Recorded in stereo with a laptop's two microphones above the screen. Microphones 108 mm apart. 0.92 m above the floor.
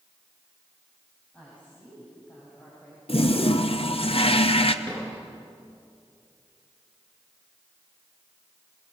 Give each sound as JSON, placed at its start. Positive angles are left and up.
{"t": 1.3, "sound": "a woman speaking", "side_deg": 15, "distance_m": 8.0}
{"t": 3.1, "sound": "a toilet flushing", "side_deg": 60, "distance_m": 1.1}
{"t": 4.8, "sound": "a drawer", "side_deg": 10, "distance_m": 9.5}